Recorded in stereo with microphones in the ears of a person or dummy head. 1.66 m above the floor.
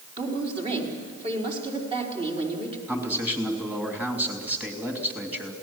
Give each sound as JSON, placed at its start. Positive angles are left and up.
{"t": 0.2, "sound": "a woman speaking", "side_deg": -35, "distance_m": 4.5}
{"t": 2.9, "sound": "a man speaking", "side_deg": -10, "distance_m": 3.0}